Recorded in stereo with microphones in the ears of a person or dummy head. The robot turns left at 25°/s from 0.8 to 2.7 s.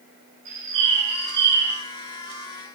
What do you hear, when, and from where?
0.5 s a bird: 40° right (ahead or behind), 2 m; by 1.8 s 20° right (ahead or behind), 2 m